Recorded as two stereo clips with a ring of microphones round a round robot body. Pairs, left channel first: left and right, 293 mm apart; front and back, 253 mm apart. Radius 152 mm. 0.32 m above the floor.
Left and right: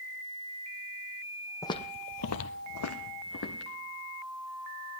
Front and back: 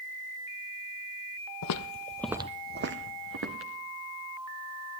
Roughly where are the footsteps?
Ahead.